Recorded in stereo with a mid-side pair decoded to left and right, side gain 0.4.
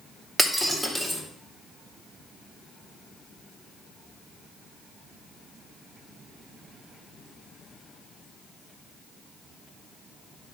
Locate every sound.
0.4 s breaking glass: 15° right, 2.5 m